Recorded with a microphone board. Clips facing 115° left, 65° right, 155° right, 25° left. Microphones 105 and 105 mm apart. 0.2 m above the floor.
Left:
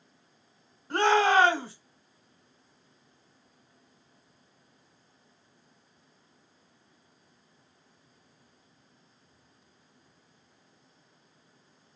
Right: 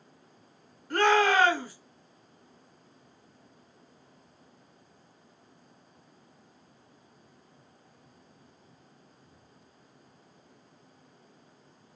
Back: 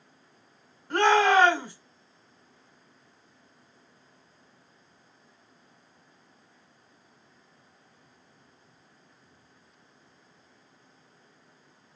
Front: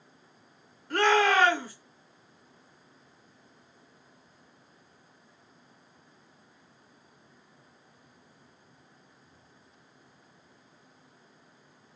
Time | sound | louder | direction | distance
0.9 | a shout | left 1 dB, back 3 dB | 155° left | 1.3 m